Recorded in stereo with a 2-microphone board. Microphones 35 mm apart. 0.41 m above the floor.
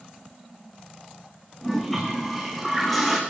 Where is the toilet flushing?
5° left (ahead or behind), 5 m.